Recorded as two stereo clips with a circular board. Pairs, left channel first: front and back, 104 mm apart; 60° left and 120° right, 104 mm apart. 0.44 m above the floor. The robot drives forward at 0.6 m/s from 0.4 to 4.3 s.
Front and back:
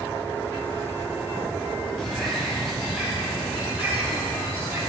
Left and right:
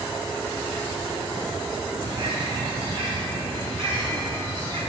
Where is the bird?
85° right, 3 m; by 4.8 s 115° right, 3 m.